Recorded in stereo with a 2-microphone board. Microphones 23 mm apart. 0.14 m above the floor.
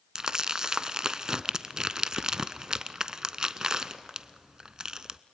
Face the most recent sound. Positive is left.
turn(degrees=-30)  # may be behind; listen again after turning